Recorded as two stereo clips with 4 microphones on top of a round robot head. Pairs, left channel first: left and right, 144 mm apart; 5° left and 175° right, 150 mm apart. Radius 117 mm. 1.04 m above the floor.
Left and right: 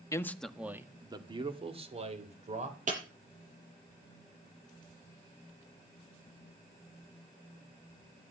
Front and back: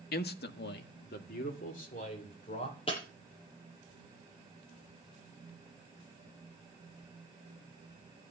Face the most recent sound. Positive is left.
turn(degrees=-60)